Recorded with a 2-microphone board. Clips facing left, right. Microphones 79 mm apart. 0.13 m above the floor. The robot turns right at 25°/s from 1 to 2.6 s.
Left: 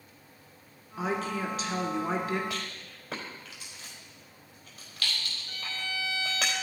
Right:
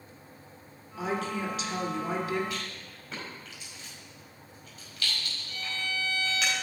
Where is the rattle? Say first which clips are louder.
Even; 80° left, 4 m; by 6.5 s 85° left, 4 m.